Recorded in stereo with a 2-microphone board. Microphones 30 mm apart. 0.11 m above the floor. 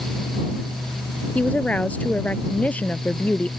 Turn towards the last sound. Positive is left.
turn(degrees=50)  # may be behind; listen again after turning